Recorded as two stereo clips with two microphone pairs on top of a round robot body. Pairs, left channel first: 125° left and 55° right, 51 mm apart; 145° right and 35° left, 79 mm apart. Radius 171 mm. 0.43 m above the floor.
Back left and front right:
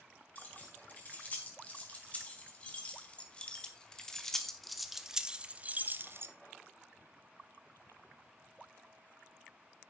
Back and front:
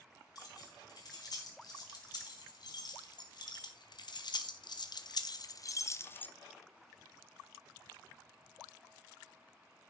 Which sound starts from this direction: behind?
Keys jangling, at 0.3 s.